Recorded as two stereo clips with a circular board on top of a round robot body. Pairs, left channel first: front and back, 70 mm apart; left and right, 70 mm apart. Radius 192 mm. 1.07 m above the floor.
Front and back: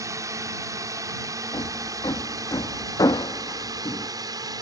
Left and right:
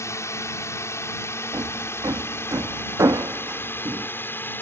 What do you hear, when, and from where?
0.0 s a drone: 140° left; by 4.6 s 150° left
1.5 s hammering: 40° right